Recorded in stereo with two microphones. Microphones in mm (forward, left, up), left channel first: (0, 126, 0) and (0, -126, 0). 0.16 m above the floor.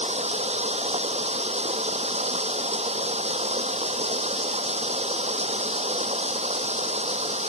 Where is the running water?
25° right (ahead or behind).